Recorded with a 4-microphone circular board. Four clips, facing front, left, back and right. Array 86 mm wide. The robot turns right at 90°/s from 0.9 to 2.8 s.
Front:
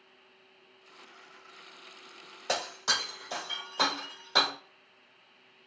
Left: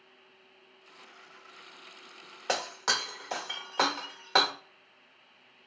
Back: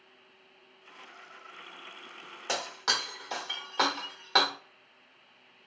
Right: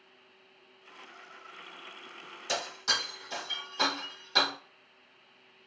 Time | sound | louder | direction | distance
2.5 | breaking glass | left 3 dB, even | 95° left | 1.3 m